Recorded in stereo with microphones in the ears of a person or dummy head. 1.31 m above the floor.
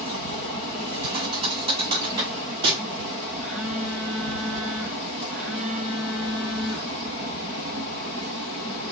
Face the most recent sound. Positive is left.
turn(degrees=0)  # may be behind; listen again after turning